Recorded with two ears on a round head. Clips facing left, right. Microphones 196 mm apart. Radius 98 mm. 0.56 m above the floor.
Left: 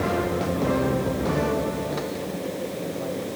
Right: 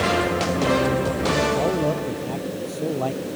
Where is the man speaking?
85° right.